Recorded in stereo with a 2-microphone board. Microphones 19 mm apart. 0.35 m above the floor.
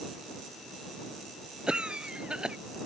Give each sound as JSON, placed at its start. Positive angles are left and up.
{"t": 1.7, "sound": "a cough", "side_deg": -55}